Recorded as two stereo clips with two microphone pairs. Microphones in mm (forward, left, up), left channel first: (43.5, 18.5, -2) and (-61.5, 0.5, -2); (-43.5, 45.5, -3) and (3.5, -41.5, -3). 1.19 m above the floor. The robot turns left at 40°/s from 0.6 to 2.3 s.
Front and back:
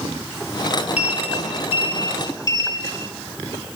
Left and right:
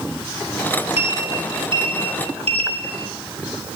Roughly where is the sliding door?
Ahead.